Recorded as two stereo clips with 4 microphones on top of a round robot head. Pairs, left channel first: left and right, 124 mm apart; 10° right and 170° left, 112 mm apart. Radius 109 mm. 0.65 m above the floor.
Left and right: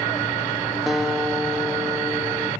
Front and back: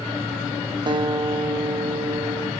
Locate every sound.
0.9 s a guitar: 175° right, 0.8 m